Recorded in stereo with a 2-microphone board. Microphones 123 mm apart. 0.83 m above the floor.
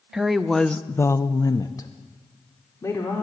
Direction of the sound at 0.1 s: 5° right (ahead or behind).